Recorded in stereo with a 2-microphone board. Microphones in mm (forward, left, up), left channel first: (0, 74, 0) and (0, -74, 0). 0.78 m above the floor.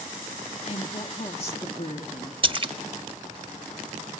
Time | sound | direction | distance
0.7 | a woman speaking | 40° left (ahead or behind) | 1.1 m
2.4 | a splash | 35° right (ahead or behind) | 0.7 m